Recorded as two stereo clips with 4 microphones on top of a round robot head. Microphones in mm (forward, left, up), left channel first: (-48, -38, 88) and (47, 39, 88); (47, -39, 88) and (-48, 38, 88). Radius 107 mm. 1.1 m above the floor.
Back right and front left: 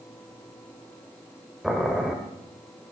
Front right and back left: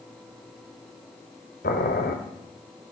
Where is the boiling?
50° right, 1.2 m.